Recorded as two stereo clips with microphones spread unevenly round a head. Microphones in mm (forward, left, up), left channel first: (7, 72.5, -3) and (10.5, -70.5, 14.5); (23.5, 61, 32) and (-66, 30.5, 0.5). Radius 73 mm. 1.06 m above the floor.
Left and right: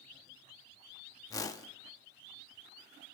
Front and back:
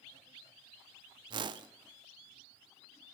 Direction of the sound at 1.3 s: 155° left.